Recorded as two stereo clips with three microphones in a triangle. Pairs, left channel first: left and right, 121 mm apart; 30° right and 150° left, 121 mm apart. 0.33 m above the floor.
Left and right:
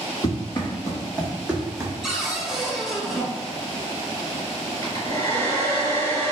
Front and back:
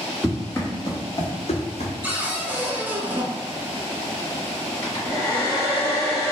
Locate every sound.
0.2 s running footsteps: 50° left, 1.1 m; by 1.9 s 30° right, 0.9 m
2.0 s a cupboard door: 170° right, 0.6 m
4.8 s a hair dryer: 35° left, 1.8 m